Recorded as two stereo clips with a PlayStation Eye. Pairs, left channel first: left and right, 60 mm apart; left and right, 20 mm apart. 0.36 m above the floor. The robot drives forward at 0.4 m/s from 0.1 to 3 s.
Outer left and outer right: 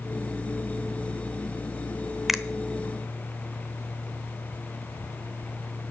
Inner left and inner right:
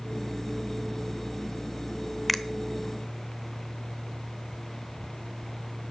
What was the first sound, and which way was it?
A finger snap, 5° right (ahead or behind).